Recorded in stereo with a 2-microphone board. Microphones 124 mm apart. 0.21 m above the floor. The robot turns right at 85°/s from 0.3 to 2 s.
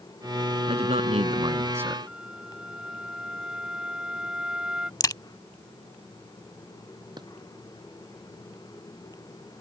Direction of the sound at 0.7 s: 115° right.